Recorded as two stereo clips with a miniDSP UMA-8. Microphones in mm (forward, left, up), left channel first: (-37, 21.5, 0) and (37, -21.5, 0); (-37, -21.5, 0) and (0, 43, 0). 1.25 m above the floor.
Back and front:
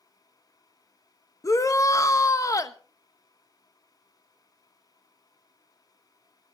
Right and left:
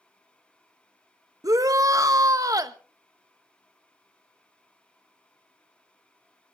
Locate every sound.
1.4 s a shout: 100° left, 1.1 m